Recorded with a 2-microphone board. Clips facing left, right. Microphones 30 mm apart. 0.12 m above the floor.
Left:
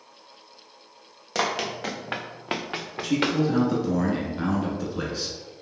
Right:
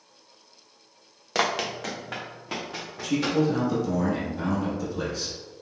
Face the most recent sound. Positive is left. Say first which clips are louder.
# even
turn(degrees=25)  # may be behind; listen again after turning